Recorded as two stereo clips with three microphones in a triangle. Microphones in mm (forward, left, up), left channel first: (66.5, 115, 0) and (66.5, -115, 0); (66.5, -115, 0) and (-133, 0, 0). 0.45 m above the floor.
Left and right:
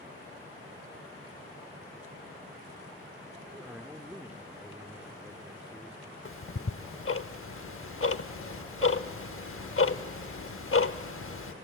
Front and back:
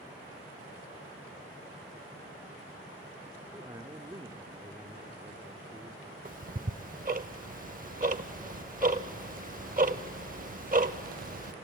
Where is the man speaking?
165° right, 0.8 m.